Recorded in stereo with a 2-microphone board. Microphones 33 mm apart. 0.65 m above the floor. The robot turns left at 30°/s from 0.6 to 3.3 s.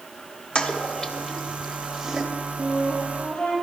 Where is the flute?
55° left (ahead or behind), 5 m; by 3.5 s 35° left (ahead or behind), 5 m.